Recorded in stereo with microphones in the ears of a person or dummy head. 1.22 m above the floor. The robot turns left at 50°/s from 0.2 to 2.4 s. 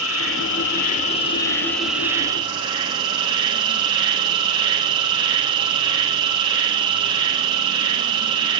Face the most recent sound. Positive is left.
turn(degrees=-30)